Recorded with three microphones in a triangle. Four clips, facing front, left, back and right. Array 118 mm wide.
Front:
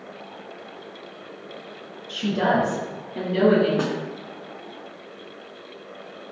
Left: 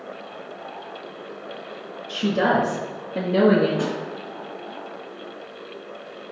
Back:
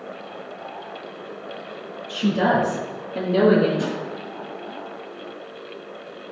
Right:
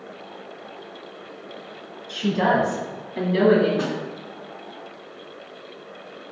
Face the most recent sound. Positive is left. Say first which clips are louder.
# left 1 dB, front 1 dB
turn(degrees=5)